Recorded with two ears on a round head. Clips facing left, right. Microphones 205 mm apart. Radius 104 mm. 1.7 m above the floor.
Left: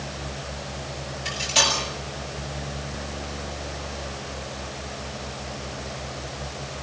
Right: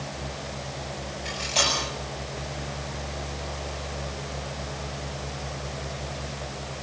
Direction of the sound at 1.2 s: 10° left (ahead or behind).